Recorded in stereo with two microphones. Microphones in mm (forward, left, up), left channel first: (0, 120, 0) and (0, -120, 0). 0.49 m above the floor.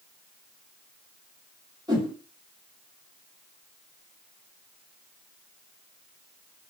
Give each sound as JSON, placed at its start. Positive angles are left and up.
{"t": 1.9, "sound": "a whoosh", "side_deg": -15, "distance_m": 1.4}